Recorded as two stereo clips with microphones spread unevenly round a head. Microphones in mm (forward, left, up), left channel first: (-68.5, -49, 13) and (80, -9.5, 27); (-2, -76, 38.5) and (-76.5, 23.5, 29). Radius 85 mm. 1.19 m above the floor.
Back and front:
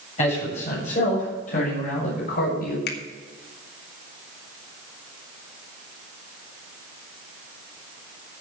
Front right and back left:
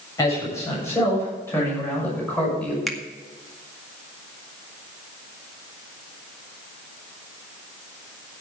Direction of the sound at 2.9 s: 140° right.